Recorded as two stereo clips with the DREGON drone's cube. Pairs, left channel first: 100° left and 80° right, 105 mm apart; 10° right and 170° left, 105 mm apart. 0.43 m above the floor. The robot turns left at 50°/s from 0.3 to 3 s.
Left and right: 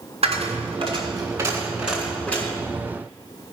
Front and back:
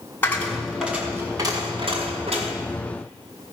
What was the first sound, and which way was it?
A dropped coin, 80° right.